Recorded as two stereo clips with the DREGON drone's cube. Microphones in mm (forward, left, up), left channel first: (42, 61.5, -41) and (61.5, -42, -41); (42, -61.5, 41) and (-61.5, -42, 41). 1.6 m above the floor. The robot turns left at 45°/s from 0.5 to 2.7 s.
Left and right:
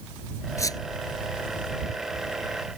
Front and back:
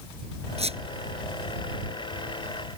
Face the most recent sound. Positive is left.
turn(degrees=65)